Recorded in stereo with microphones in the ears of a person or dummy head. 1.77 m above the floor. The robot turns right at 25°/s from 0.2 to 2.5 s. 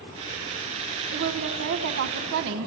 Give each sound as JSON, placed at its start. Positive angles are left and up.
{"t": 1.1, "sound": "a woman speaking", "azimuth_deg": -120, "distance_m": 1.4}